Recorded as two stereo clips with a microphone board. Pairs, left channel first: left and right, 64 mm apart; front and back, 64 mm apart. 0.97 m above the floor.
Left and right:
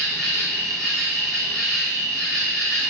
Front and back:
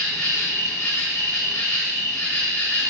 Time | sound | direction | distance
0.0 | an insect | 5° left | 1.7 m